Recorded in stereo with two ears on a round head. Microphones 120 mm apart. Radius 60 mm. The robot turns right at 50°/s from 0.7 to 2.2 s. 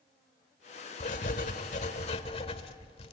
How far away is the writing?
About 1.6 m.